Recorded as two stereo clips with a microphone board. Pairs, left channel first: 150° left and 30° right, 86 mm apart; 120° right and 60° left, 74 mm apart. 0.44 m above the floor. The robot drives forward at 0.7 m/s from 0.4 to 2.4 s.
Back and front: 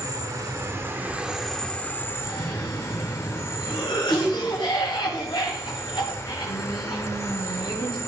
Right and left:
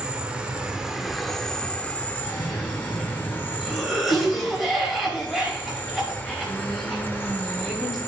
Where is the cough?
145° left, 2.5 m.